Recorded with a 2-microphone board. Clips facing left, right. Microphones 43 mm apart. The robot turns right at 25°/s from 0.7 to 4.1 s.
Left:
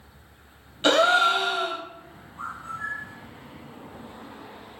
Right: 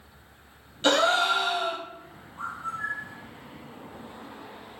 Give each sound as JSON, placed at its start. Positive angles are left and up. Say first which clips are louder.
{"t": 0.8, "sound": "a gasp", "louder": "left 3 dB", "side_deg": 20, "distance_m": 0.5}
{"t": 2.4, "sound": "a bird", "louder": "right 1 dB", "side_deg": -25, "distance_m": 1.5}